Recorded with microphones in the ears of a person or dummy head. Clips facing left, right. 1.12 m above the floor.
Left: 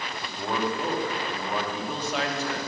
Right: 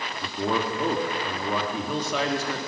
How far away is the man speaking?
About 2.5 m.